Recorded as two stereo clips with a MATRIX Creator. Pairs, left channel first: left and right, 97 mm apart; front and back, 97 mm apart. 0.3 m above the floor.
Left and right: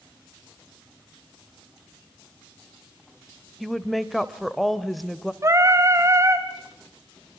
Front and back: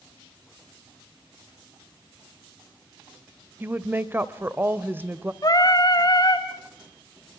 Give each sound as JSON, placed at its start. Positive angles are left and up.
{"t": 3.6, "sound": "a woman speaking", "azimuth_deg": 180, "distance_m": 1.0}
{"t": 5.4, "sound": "singing", "azimuth_deg": -40, "distance_m": 1.6}